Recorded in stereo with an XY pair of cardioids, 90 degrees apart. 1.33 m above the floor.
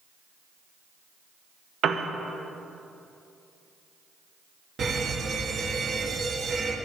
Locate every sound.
1.8 s a piano: 70° right, 0.8 m
4.8 s an alarm: 55° right, 1.6 m